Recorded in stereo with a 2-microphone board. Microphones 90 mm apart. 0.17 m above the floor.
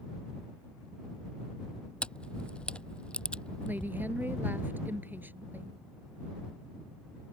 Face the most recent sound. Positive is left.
turn(degrees=-20)  # may be behind; listen again after turning